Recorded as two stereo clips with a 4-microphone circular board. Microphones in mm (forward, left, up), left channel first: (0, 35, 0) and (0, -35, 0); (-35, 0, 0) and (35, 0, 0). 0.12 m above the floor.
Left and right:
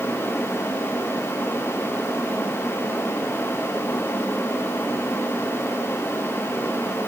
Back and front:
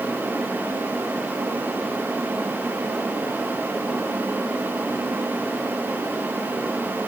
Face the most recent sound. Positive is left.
No sound to turn to.